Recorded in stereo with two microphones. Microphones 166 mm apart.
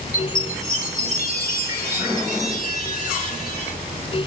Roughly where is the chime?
Left.